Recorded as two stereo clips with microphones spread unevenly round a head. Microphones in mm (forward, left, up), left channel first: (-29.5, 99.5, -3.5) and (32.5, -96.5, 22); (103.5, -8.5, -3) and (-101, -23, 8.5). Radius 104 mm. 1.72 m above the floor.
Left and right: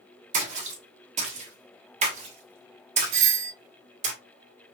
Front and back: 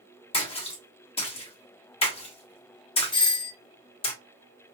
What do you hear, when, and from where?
0.3 s a splash: 50° right, 1.5 m
3.1 s a doorbell: 65° right, 0.7 m